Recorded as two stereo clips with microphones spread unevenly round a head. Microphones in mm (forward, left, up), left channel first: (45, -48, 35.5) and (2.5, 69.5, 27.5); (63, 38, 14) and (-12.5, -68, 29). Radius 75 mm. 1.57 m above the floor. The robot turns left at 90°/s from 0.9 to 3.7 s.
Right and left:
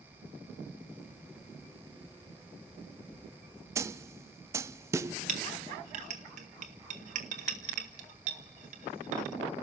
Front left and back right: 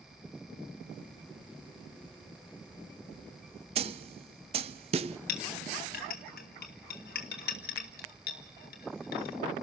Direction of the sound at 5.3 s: 85° left.